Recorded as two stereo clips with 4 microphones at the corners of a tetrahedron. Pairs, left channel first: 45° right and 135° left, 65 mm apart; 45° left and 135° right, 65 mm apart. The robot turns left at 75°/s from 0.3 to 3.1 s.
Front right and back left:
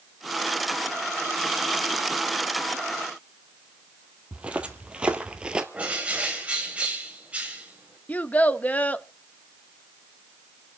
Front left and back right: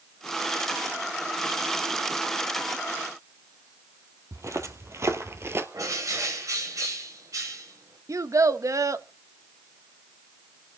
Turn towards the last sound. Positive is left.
turn(degrees=-110)